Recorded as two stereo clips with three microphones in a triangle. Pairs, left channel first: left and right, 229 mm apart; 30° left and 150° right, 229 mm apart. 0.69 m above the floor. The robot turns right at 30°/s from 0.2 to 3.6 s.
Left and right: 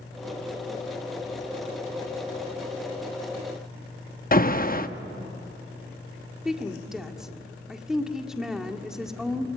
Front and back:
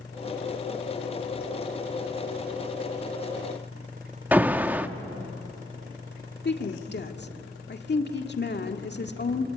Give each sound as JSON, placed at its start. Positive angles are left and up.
{"t": 4.3, "sound": "an alarm", "azimuth_deg": 130, "distance_m": 0.8}
{"t": 6.5, "sound": "a woman speaking", "azimuth_deg": 0, "distance_m": 1.8}